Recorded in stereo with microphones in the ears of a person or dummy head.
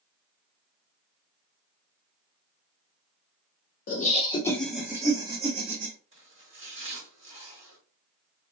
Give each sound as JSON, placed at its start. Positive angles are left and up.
{"t": 3.9, "sound": "laughter", "side_deg": 45, "distance_m": 0.7}
{"t": 6.1, "sound": "chopping", "side_deg": -35, "distance_m": 1.8}